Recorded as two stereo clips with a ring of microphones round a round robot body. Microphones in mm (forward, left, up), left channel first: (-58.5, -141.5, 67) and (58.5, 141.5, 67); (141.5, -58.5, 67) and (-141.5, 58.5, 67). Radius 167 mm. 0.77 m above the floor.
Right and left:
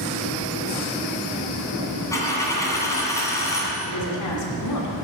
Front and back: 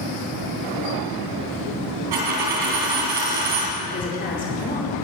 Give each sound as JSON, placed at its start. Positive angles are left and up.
{"t": 2.1, "sound": "a dropped coin", "azimuth_deg": 165, "distance_m": 2.5}
{"t": 3.9, "sound": "a woman speaking", "azimuth_deg": -85, "distance_m": 2.5}